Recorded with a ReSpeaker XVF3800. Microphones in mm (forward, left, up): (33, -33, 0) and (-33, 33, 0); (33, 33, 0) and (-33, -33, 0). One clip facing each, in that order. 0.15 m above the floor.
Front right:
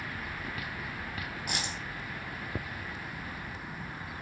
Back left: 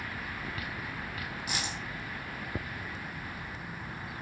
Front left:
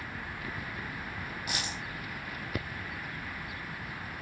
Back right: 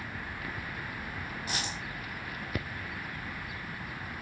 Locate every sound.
1.5 s a dropped coin: 80° right, 1.8 m